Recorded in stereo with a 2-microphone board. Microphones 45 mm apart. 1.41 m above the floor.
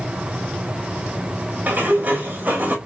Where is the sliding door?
35° right (ahead or behind), 2.5 m.